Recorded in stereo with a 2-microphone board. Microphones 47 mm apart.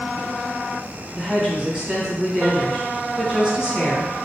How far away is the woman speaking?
About 1.3 m.